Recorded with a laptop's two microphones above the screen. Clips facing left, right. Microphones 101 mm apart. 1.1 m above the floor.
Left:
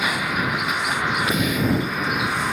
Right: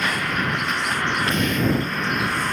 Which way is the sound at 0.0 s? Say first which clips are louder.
Even; 5° left (ahead or behind).